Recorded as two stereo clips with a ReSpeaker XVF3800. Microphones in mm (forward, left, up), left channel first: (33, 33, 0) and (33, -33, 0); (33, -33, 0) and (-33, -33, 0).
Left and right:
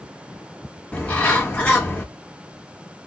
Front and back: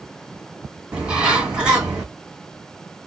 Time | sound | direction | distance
0.9 | a bird | 125° left | 1.4 m